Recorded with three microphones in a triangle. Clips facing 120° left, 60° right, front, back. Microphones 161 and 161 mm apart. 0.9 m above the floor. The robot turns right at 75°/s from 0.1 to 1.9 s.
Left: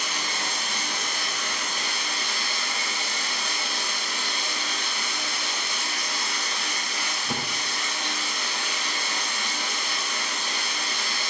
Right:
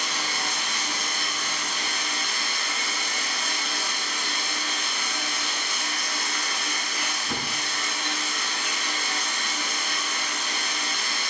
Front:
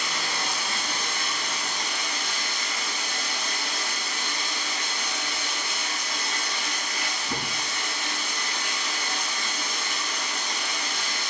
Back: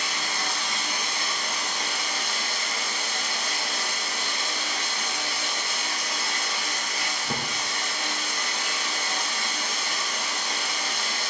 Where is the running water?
40° left, 2 m; by 11.3 s 175° left, 2 m.